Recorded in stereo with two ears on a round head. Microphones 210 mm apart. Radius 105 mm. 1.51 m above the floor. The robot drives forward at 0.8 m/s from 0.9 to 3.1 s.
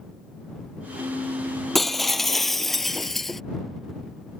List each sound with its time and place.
1.8 s breaking glass: centre (ahead or behind)